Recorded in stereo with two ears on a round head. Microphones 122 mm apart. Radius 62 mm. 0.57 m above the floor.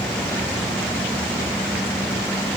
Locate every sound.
Only background noise.